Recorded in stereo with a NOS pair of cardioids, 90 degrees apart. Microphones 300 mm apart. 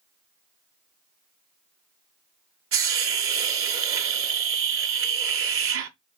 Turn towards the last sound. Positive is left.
turn(degrees=-45)